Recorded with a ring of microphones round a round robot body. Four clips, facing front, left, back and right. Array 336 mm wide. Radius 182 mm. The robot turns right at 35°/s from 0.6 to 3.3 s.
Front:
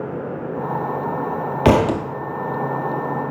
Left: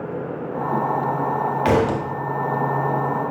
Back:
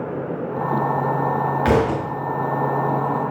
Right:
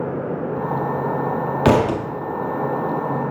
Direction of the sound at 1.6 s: 35° right.